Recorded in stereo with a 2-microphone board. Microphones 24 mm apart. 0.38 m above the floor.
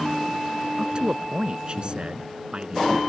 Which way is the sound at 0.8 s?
40° right (ahead or behind).